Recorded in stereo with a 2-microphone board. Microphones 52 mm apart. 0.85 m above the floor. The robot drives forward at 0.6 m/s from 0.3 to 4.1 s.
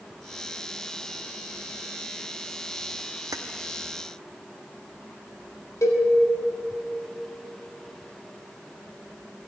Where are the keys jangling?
85° right, 0.7 m; by 3.4 s 80° right, 0.7 m.